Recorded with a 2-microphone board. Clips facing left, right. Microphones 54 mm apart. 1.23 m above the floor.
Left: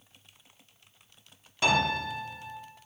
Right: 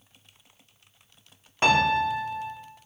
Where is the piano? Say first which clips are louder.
Right 5 dB; 40° right (ahead or behind), 1.8 m.